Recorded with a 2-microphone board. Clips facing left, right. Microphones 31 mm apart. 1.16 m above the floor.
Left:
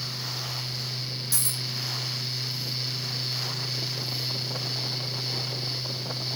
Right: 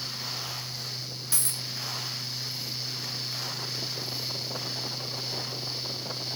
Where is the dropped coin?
45° right (ahead or behind), 1.9 m.